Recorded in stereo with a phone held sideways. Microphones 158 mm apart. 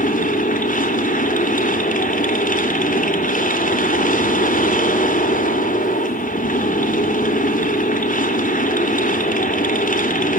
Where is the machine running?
55° left (ahead or behind), 3 m.